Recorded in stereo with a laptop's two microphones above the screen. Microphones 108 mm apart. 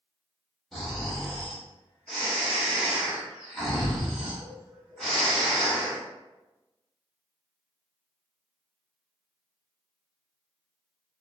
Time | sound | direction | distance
0.7 | snoring | centre (ahead or behind) | 1.4 m